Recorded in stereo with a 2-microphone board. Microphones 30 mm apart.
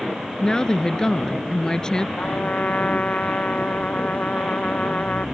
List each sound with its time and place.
0.4 s a woman speaking: 25° left (ahead or behind)
2.2 s a trumpet: 50° left (ahead or behind)